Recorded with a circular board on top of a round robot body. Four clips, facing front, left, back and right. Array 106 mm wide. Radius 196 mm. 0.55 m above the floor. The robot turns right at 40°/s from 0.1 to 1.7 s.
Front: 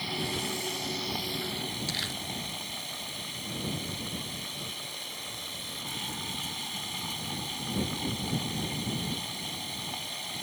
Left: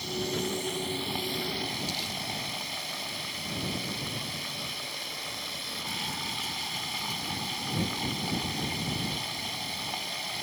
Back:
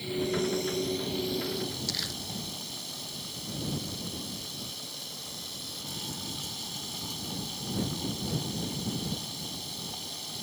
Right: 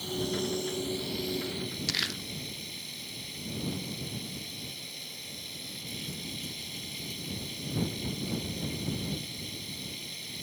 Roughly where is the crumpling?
Right.